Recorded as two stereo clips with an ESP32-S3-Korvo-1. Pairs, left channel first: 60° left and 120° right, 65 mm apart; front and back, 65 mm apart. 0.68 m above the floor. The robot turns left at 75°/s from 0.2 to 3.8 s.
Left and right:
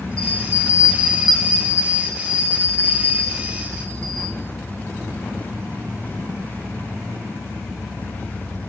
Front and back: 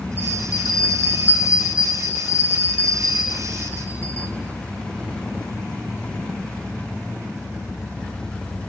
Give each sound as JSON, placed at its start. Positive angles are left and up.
{"t": 0.2, "sound": "a bell", "azimuth_deg": 130, "distance_m": 1.6}